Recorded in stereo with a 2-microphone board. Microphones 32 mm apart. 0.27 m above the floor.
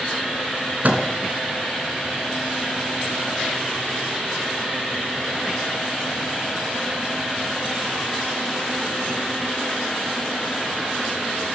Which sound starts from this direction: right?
A microwave, at 0.8 s.